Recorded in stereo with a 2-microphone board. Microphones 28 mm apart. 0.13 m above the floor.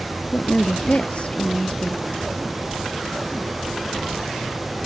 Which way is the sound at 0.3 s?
45° left (ahead or behind).